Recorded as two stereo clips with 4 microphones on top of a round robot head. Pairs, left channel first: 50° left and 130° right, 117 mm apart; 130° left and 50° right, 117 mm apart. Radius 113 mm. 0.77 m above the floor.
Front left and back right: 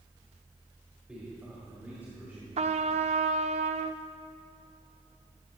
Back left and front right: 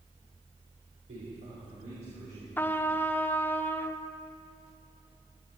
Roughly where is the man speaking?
Ahead right.